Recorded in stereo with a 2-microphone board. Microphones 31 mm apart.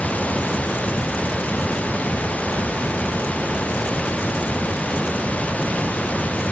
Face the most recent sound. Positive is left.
turn(degrees=50)  # may be behind; listen again after turning